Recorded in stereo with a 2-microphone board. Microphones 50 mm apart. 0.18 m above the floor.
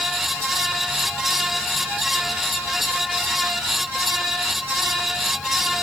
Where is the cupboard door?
I don't hear a cupboard door.